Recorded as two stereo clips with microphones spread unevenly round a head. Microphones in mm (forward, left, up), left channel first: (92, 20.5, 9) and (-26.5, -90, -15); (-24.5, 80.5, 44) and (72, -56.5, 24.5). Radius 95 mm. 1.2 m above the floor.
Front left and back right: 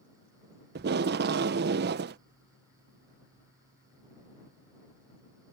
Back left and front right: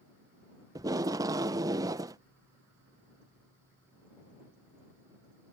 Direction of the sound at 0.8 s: 125° right.